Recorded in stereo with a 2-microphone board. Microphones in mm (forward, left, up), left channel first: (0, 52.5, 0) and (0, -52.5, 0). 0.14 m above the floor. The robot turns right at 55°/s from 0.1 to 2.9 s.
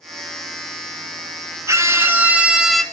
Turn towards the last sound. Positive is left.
turn(degrees=10)